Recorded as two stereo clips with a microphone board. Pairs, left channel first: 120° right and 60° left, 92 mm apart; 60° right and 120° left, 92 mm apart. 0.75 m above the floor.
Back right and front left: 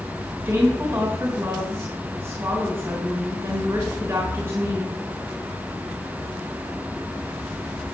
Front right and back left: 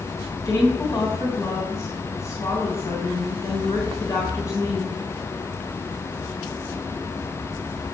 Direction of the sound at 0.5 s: 10° right.